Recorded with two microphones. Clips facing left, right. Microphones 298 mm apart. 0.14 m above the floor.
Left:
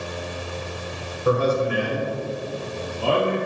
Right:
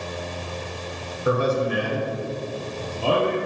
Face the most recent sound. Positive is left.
turn(degrees=-45)  # may be behind; listen again after turning